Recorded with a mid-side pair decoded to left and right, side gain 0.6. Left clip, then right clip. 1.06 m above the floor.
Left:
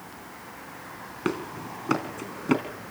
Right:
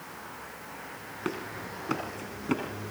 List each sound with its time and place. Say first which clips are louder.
1.2 s running footsteps: left 5 dB; 30° left, 3.5 m